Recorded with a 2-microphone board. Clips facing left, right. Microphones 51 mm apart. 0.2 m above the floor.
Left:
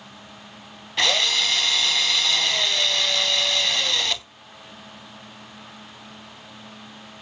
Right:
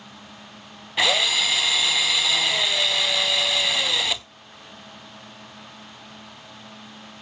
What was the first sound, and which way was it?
A drill, 10° right (ahead or behind).